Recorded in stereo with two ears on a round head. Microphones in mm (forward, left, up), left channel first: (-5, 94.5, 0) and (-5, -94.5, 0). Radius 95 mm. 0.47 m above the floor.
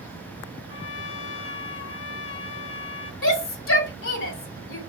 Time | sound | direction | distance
0.7 | a trumpet | 65° left (ahead or behind) | 0.7 m
3.2 | a shout | 60° left (ahead or behind) | 2 m